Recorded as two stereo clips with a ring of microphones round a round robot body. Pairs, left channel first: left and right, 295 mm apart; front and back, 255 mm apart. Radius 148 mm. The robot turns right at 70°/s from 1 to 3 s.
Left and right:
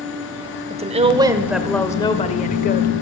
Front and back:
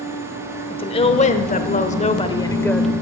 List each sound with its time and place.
0.7 s a woman speaking: 45° right, 0.9 m; by 2.9 s 90° left, 0.9 m